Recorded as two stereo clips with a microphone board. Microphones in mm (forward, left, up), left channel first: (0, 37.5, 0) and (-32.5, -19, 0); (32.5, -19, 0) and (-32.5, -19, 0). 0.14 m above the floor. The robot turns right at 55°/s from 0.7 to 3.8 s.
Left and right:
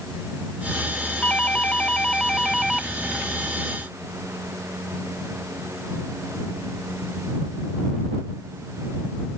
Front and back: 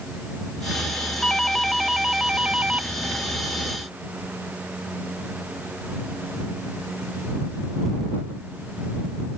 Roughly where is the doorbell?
Ahead left.